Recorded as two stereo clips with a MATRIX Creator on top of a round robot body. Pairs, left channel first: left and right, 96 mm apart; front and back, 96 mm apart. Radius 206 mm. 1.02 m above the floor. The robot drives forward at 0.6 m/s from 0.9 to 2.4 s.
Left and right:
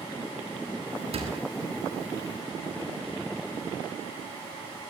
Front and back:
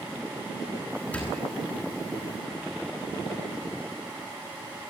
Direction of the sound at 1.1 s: 75° right.